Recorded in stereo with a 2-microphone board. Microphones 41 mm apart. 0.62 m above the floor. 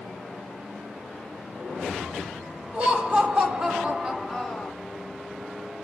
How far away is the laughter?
About 1.5 m.